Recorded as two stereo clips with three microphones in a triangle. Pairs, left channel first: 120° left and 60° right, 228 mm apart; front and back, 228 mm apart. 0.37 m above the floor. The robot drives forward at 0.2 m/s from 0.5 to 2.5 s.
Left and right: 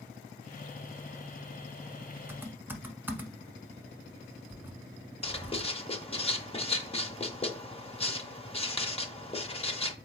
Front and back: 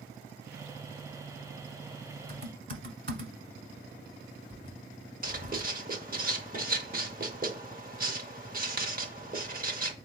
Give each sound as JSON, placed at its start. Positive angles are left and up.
{"t": 2.3, "sound": "typing on a keyboard", "azimuth_deg": -140, "distance_m": 0.9}
{"t": 5.2, "sound": "writing", "azimuth_deg": 170, "distance_m": 0.6}